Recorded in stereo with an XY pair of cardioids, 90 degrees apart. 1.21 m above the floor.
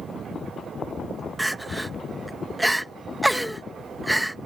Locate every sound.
1.4 s crying: 5° right